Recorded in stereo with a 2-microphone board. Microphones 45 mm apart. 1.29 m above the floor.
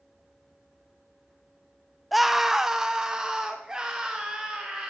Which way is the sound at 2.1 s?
Centre (ahead or behind).